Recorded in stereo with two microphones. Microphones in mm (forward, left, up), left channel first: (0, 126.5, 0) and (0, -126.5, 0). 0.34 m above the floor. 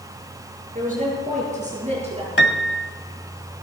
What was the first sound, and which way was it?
A woman speaking, 30° right (ahead or behind).